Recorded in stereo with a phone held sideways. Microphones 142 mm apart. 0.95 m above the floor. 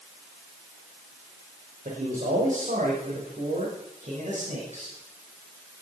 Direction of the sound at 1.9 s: 70° right (ahead or behind).